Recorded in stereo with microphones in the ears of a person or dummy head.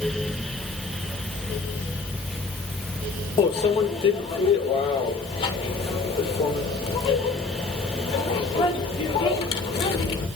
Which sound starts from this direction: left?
A microwave, at 3.4 s.